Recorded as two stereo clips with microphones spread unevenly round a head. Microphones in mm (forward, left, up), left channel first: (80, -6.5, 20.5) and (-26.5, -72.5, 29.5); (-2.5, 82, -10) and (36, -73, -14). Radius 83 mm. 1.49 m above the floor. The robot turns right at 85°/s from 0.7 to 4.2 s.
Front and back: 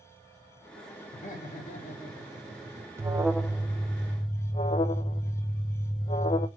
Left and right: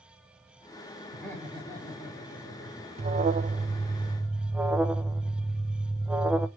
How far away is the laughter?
About 3.5 m.